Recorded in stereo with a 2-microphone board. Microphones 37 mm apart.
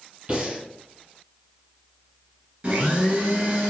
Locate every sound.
0.3 s breathing: 30° right (ahead or behind), 1.4 m
2.6 s a blender: 35° right (ahead or behind), 1.5 m